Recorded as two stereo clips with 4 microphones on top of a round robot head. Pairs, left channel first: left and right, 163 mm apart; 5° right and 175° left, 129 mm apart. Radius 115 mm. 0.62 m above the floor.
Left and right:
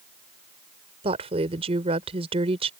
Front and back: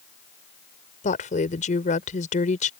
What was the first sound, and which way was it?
A woman speaking, 35° right.